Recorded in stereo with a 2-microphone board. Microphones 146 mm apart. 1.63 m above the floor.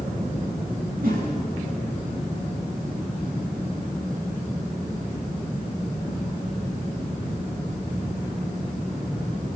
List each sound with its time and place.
1.0 s a whoosh: 70° right (ahead or behind), 9.5 m